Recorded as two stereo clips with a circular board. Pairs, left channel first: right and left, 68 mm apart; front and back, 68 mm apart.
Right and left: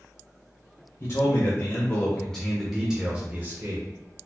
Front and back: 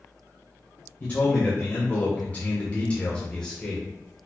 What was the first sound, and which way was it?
A man speaking, 60° right.